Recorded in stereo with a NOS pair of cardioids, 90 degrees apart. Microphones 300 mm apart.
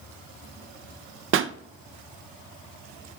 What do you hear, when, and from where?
1.3 s a pop: 45° right, 0.6 m